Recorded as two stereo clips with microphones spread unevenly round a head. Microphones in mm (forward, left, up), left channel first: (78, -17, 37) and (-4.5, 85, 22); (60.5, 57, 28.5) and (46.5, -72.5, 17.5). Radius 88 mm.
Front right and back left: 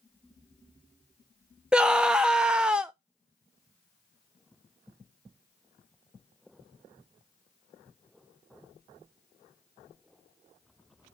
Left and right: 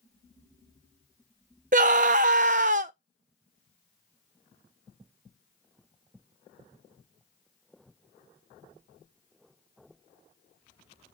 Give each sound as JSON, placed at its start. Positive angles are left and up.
{"t": 1.7, "sound": "a scream", "azimuth_deg": -145, "distance_m": 0.6}